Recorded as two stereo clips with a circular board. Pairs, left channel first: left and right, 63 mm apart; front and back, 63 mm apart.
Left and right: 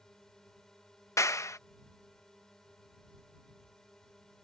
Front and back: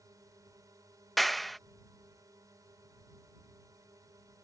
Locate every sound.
0.0 s a drone: 170° left
1.2 s a clap: 90° left